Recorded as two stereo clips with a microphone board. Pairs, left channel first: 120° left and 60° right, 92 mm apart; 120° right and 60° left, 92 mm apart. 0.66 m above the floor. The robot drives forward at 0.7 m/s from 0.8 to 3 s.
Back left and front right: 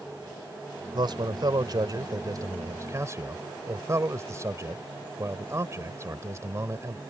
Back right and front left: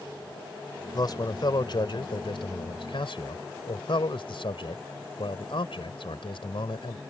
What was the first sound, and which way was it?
A man speaking, 85° right.